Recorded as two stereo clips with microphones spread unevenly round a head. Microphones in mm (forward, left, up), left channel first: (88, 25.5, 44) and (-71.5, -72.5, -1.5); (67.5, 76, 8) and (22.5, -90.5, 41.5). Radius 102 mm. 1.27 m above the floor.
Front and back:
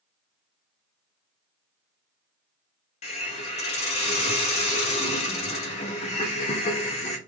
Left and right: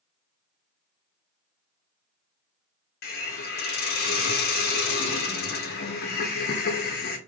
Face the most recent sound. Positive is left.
turn(degrees=55)